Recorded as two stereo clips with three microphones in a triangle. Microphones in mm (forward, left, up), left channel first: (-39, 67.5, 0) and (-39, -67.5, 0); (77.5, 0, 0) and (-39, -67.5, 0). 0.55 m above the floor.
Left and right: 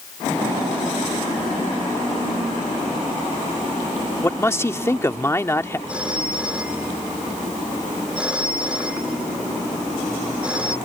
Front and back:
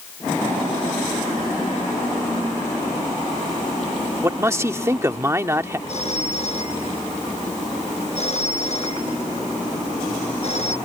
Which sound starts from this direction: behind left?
A man speaking, at 4.2 s.